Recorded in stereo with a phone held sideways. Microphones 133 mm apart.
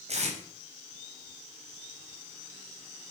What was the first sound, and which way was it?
Tape being pulled, 55° right (ahead or behind).